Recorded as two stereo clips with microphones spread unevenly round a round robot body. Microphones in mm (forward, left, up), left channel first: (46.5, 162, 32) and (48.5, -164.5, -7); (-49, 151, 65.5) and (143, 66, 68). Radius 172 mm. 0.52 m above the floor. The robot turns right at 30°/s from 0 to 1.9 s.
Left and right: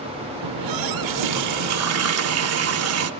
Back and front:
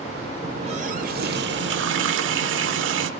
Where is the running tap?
95° right, 0.9 m; by 3.1 s 50° right, 0.9 m.